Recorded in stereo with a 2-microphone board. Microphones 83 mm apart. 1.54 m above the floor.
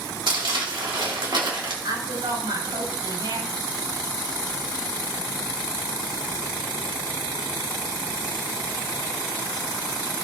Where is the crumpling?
70° right (ahead or behind), 2.5 m.